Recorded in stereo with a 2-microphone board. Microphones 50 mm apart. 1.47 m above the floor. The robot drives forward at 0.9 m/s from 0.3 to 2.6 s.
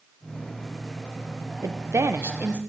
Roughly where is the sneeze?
I don't hear a sneeze.